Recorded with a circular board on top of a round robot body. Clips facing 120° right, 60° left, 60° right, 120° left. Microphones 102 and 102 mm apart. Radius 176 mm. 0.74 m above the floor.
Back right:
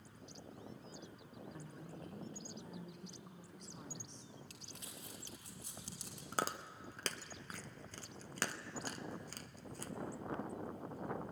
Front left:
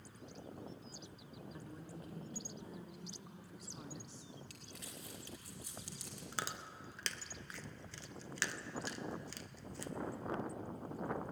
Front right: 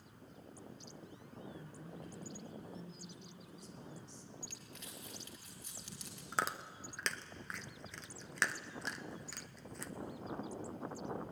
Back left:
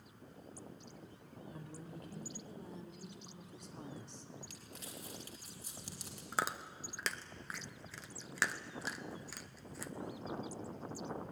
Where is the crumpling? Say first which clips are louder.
Front left 2 dB, back left 2 dB; 175° left, 3.5 m.